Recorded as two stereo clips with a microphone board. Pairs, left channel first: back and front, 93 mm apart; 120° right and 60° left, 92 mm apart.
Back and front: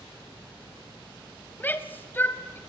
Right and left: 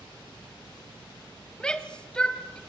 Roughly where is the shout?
Behind.